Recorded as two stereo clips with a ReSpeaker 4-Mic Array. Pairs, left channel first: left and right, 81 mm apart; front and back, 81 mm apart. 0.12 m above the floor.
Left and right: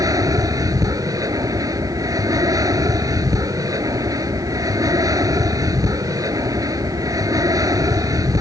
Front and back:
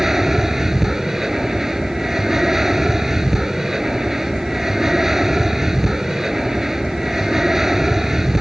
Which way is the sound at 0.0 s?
95° right.